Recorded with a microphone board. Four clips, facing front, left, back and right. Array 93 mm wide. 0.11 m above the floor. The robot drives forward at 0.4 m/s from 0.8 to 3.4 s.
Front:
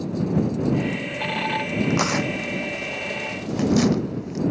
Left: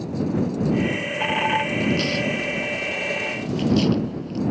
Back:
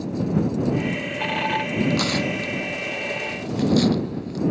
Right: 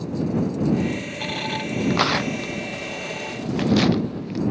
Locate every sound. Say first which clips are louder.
1.9 s tearing paper: right 1 dB, front 1 dB; 70° right